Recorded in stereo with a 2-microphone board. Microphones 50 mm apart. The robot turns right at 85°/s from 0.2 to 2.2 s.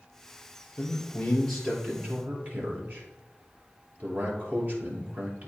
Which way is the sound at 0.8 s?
55° left (ahead or behind).